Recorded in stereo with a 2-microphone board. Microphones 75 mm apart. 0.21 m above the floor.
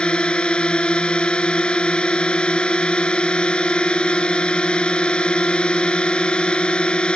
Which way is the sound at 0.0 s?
15° left (ahead or behind).